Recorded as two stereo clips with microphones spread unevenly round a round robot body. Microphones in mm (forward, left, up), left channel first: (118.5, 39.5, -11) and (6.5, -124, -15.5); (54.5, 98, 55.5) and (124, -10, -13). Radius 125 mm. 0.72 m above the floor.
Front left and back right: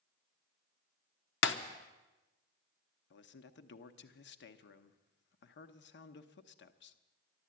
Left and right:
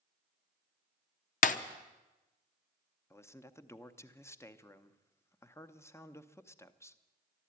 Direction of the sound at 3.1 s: 40° left.